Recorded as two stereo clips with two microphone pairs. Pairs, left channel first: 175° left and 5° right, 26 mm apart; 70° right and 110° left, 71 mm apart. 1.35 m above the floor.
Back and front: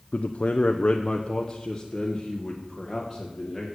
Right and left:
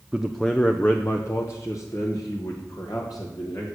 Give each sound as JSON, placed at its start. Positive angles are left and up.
{"t": 0.1, "sound": "a man speaking", "azimuth_deg": -170, "distance_m": 0.5}